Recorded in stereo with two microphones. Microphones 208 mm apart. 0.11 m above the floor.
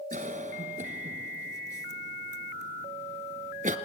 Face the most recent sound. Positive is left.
turn(degrees=-40)  # may be behind; listen again after turning